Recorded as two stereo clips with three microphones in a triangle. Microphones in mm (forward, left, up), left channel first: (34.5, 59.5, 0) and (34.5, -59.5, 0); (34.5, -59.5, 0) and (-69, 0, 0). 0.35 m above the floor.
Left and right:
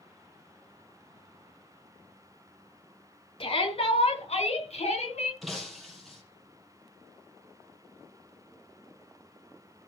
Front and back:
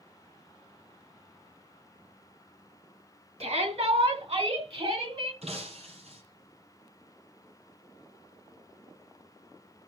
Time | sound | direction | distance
3.4 | a shout | 125° left | 4 m
5.4 | breaking glass | straight behind | 4 m